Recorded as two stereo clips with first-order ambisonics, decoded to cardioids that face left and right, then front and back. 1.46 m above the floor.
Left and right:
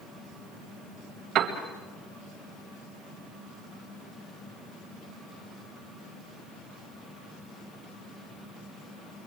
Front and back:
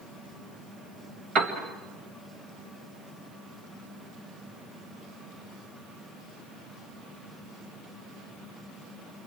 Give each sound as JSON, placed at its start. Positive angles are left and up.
{"t": 1.4, "sound": "a piano", "azimuth_deg": -135, "distance_m": 2.0}